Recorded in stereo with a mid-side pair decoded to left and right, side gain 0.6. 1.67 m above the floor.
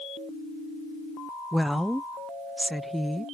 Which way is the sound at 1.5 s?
5° right.